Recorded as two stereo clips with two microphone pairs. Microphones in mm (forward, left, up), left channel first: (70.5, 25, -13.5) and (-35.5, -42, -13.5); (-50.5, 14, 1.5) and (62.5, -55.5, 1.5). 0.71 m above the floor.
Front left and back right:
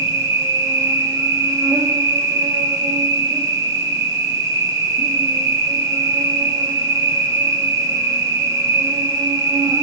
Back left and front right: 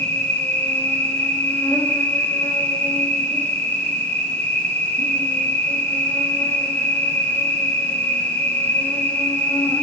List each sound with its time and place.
0.0 s an insect: 150° right, 1.1 m